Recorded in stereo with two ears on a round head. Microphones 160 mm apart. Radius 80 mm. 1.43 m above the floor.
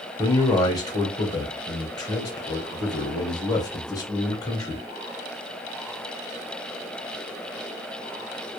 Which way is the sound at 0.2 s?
25° left (ahead or behind).